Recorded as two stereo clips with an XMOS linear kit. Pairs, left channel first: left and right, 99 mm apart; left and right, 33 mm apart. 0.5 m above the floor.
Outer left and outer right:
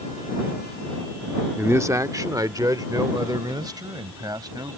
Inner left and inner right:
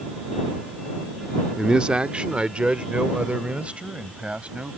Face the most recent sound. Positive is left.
turn(degrees=-45)  # may be behind; listen again after turning